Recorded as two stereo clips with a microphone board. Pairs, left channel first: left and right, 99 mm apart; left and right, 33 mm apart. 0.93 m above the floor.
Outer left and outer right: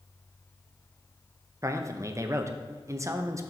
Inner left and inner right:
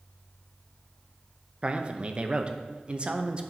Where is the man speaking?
30° right (ahead or behind), 0.6 m.